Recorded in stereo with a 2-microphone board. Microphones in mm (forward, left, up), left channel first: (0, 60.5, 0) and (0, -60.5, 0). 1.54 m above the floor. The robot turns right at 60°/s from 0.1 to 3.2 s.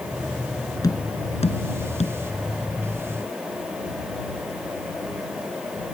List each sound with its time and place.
0.8 s tapping: 30° left (ahead or behind); by 2.2 s 60° left (ahead or behind)